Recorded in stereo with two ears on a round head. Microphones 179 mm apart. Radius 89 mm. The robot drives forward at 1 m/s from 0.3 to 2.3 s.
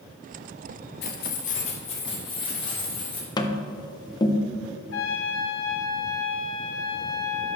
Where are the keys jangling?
55° left (ahead or behind), 1.0 m; by 3.3 s 25° left (ahead or behind), 2.0 m.